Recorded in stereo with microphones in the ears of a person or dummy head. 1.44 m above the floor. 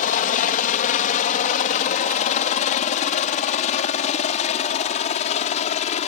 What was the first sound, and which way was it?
A helicopter, 40° left (ahead or behind).